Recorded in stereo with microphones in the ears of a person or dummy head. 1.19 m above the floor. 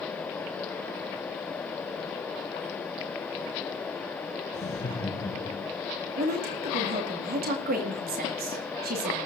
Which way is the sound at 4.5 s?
25° left (ahead or behind).